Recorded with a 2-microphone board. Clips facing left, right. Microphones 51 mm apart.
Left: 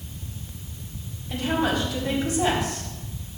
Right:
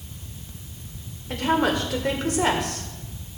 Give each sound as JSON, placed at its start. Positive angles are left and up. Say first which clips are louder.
{"t": 1.3, "sound": "a woman speaking", "louder": "right 2 dB", "side_deg": -70, "distance_m": 2.0}